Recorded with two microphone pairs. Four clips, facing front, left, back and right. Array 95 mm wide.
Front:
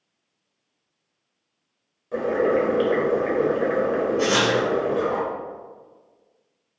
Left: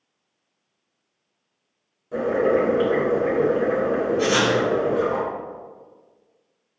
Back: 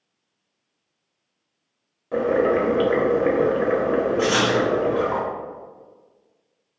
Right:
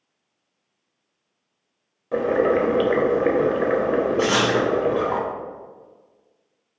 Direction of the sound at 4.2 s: 80° right.